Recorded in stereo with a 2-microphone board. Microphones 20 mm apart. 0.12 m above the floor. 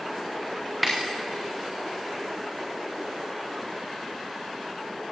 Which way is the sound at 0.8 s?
Centre (ahead or behind).